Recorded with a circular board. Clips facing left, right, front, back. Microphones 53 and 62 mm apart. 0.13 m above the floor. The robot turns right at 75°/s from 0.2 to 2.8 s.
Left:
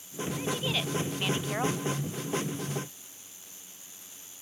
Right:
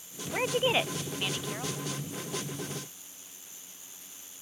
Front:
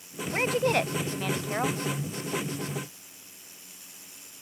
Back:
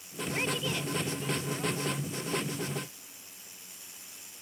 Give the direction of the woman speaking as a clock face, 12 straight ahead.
2 o'clock.